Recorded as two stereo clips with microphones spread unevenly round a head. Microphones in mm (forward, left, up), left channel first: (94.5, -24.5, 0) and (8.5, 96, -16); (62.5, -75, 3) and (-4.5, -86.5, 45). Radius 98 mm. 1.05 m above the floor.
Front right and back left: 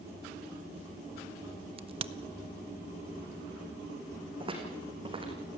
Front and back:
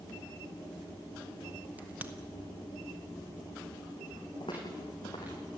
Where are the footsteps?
70° left, 4 m.